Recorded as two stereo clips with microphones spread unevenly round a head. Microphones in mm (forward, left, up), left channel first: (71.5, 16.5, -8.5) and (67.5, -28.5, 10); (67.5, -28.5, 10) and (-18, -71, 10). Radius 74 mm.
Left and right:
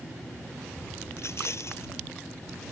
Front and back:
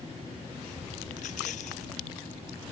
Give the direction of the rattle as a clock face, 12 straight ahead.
10 o'clock.